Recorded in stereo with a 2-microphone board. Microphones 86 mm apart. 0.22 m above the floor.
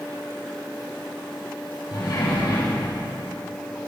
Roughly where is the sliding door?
Left.